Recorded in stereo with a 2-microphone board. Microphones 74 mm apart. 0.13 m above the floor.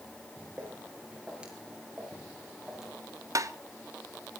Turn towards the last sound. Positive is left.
turn(degrees=-45)  # may be behind; listen again after turning